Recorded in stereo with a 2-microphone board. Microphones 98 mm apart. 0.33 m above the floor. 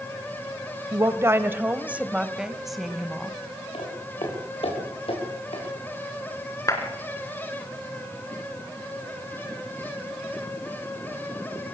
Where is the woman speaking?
35° right (ahead or behind), 1.2 m; by 3.4 s 5° left (ahead or behind), 1.7 m.